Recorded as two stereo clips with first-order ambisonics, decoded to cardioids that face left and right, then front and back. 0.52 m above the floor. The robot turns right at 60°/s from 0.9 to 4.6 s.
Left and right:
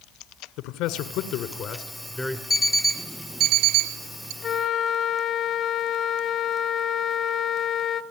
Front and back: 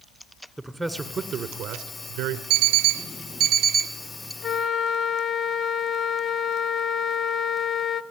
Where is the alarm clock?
160° left, 0.9 m; by 4.3 s 90° right, 0.9 m.